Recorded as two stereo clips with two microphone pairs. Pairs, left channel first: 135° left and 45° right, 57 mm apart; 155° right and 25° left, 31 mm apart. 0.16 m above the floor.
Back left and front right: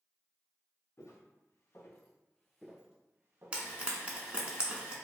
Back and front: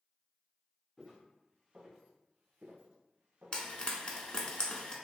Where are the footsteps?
105° left, 1.1 m; by 3.7 s 5° left, 0.9 m.